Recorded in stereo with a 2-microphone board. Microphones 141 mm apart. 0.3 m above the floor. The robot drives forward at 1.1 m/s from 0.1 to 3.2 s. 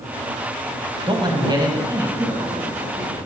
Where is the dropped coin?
No dropped coin in this recording.